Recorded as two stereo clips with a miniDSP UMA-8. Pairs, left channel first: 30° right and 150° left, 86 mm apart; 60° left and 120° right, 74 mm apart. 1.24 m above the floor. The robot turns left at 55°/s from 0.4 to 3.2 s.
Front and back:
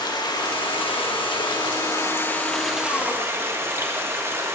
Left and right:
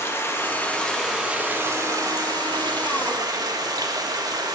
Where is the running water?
5° left, 1.3 m; by 4.5 s 150° right, 1.3 m.